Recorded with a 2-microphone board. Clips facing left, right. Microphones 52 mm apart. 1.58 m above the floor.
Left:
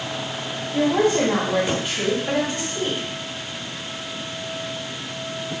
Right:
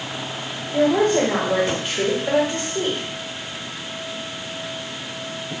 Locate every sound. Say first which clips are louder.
0.7 s a woman speaking: right 2 dB; 40° right (ahead or behind), 2.5 m